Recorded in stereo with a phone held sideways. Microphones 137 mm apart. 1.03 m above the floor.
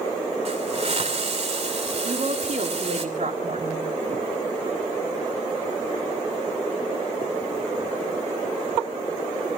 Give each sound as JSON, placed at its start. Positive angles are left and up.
{"t": 0.5, "sound": "a hiss", "side_deg": -50, "distance_m": 2.5}
{"t": 2.0, "sound": "a woman speaking", "side_deg": -65, "distance_m": 2.5}